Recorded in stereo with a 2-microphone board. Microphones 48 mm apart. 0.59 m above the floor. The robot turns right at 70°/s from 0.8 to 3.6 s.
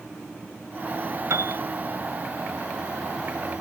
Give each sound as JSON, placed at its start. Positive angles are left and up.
{"t": 1.3, "sound": "a piano", "side_deg": -80}